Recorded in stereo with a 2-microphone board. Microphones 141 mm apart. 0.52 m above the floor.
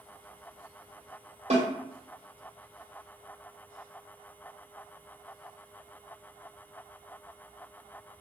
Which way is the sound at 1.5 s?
50° right (ahead or behind).